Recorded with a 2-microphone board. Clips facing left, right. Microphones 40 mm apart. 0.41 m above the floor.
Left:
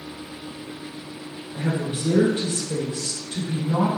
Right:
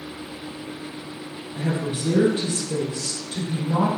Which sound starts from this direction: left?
A woman speaking, at 1.5 s.